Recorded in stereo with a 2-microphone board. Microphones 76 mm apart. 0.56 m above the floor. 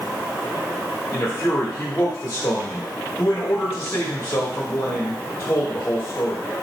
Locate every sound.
1.1 s a man speaking: 30° left (ahead or behind), 1.0 m